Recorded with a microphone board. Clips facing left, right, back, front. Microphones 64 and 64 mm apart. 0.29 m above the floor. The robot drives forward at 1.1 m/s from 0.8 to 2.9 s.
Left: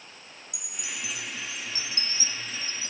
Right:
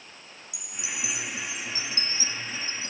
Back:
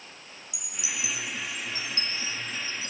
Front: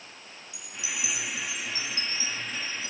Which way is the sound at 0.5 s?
110° left.